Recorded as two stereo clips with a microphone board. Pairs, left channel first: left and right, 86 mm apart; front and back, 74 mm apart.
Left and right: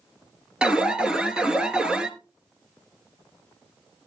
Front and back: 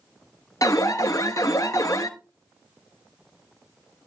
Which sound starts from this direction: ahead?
An alarm, at 0.6 s.